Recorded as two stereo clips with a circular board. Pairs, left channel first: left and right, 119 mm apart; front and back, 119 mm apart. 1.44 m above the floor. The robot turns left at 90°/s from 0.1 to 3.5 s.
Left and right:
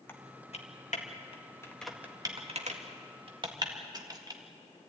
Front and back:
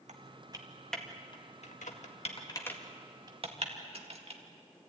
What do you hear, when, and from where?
0.1 s typing on a keyboard: 160° left, 1.9 m; by 4.4 s 145° right, 1.9 m